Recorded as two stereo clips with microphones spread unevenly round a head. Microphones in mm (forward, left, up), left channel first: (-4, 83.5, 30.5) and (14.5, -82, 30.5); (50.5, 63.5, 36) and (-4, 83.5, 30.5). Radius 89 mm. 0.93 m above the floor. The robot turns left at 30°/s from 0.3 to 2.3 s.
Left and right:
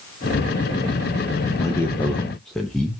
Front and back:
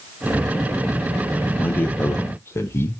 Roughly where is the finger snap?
No finger snap in this recording.